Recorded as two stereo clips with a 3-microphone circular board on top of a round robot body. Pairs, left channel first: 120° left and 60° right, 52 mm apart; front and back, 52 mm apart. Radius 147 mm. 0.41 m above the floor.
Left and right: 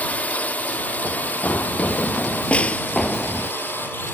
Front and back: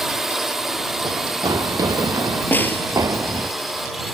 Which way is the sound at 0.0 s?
100° left.